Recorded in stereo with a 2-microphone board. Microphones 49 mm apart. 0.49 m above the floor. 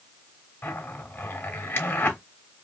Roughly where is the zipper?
Left.